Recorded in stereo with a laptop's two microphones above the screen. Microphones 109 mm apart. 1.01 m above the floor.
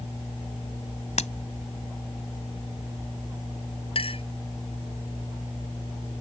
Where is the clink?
55° left (ahead or behind).